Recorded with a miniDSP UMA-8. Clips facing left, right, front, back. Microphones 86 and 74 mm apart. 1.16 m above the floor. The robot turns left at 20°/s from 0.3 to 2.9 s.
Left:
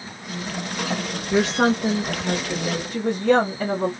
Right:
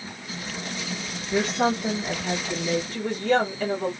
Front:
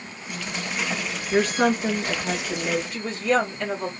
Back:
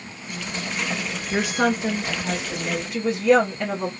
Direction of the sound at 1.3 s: 105° left.